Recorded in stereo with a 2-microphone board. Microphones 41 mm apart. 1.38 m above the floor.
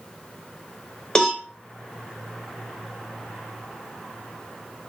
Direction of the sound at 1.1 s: 15° left (ahead or behind).